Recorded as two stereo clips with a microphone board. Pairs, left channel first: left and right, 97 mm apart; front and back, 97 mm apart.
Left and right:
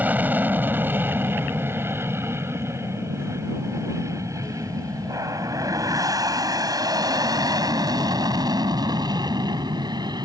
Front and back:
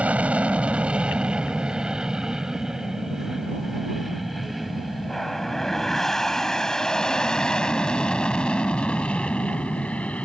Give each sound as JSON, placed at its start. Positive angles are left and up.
{"t": 0.0, "sound": "an aircraft", "azimuth_deg": -130}